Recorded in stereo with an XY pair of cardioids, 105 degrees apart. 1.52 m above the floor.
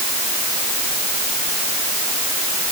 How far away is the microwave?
I don't hear a microwave.